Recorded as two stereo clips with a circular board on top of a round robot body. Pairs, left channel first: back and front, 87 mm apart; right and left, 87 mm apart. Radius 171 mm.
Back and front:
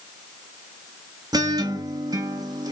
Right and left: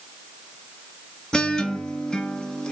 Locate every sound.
1.3 s a guitar: 10° right, 0.9 m